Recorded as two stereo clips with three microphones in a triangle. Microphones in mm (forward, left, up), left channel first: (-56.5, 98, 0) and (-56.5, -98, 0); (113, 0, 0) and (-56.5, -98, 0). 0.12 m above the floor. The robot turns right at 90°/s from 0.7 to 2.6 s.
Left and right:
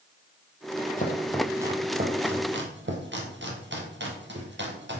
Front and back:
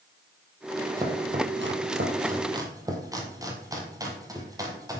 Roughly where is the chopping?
Behind left.